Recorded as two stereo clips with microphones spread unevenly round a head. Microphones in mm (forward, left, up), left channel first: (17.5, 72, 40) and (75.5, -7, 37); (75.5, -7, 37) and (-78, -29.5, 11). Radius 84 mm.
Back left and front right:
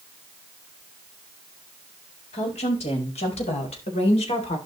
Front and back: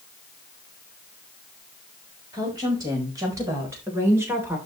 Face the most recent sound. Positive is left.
turn(degrees=110)